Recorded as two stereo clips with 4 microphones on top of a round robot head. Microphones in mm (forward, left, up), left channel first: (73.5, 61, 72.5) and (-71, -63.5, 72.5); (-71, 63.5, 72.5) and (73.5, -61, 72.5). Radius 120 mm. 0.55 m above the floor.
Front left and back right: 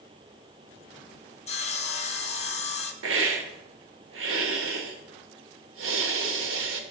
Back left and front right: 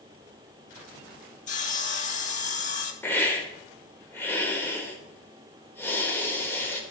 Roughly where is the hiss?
Behind right.